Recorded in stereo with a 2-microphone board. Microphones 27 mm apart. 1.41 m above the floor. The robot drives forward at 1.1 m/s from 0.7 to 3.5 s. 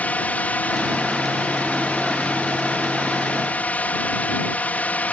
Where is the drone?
60° left (ahead or behind); by 5.1 s 65° left (ahead or behind).